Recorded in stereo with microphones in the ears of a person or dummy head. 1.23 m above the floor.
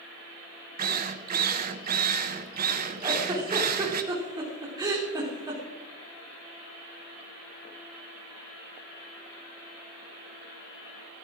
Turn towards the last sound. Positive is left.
turn(degrees=-20)  # may be behind; listen again after turning